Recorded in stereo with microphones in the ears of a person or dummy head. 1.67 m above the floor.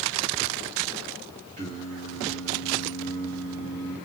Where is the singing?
35° right (ahead or behind), 2.5 m.